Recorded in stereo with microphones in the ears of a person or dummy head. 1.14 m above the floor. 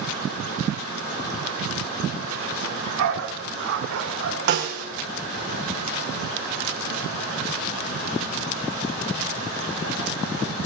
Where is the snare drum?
45° right (ahead or behind), 2.5 m.